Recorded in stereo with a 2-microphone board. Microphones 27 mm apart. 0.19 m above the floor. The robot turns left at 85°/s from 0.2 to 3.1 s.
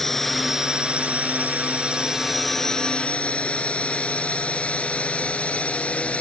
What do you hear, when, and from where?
0.0 s a drone: 10° left (ahead or behind); by 6.2 s 55° left (ahead or behind)